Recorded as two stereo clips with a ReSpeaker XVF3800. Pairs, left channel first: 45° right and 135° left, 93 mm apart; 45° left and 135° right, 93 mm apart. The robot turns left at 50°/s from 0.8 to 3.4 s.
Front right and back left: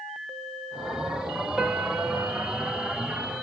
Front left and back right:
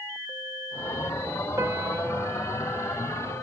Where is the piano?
145° right, 0.8 m; by 2.9 s 150° left, 0.8 m.